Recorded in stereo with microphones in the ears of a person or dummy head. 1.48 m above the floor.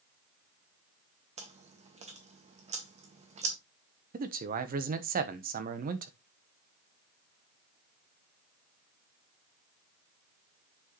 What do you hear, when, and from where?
1.4 s chewing: 40° right (ahead or behind), 1.6 m
4.1 s a man speaking: 50° right (ahead or behind), 1.1 m